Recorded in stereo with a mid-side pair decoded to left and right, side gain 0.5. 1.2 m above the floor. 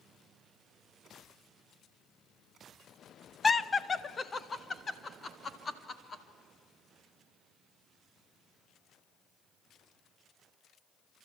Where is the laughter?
20° left, 0.7 m; by 6.2 s 35° left, 2.5 m.